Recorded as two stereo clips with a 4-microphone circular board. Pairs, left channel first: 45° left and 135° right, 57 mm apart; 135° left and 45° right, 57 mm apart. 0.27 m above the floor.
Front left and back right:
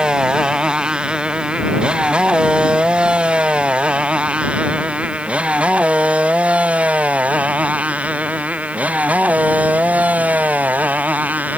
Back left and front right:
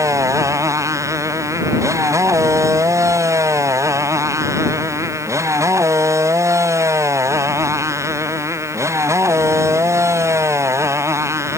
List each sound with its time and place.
0.0 s a motorcycle: 60° right; by 11.6 s 75° right